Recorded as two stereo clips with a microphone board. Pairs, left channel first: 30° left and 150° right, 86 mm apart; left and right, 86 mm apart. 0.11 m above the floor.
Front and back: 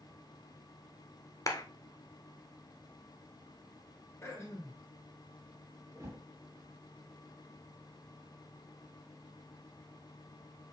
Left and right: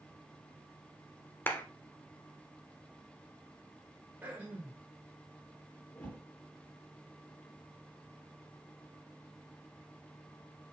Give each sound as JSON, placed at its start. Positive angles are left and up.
{"t": 1.5, "sound": "a clap", "azimuth_deg": 40, "distance_m": 1.2}
{"t": 4.2, "sound": "throat clearing", "azimuth_deg": -25, "distance_m": 3.0}
{"t": 6.0, "sound": "a whoosh", "azimuth_deg": 160, "distance_m": 2.5}